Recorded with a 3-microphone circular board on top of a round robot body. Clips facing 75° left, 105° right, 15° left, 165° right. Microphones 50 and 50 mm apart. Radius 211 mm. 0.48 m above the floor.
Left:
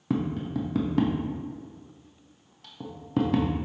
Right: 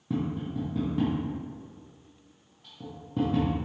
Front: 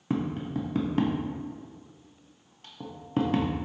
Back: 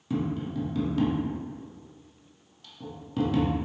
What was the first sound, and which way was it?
Tapping, 65° left.